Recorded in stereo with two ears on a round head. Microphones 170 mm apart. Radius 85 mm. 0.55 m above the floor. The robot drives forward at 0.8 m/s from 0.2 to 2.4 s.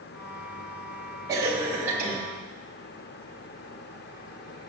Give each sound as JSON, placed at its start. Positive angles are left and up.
{"t": 1.3, "sound": "a cough", "side_deg": -15, "distance_m": 1.5}